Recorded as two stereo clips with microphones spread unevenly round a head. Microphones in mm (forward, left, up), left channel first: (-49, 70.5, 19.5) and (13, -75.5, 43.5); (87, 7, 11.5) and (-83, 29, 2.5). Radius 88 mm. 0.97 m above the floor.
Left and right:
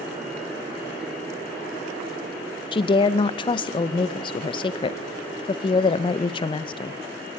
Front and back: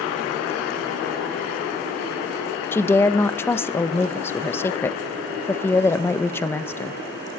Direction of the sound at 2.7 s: 70° left.